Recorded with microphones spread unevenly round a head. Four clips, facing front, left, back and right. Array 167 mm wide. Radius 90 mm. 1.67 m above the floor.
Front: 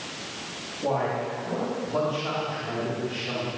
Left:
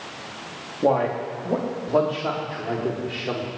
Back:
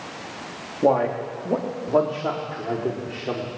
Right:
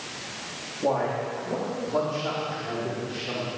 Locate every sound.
0.8 s a man speaking: 155° left, 4 m; by 3.5 s 145° left, 6 m